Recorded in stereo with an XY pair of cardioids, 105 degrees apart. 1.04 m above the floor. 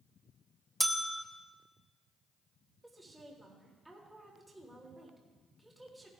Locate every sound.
0.8 s a bell: 10° right, 0.7 m
2.8 s a woman speaking: 10° right, 3 m